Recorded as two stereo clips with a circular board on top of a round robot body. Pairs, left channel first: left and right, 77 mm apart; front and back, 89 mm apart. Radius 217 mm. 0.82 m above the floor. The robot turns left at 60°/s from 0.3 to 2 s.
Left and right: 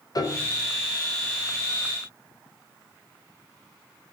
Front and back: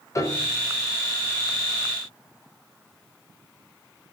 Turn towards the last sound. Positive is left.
turn(degrees=-50)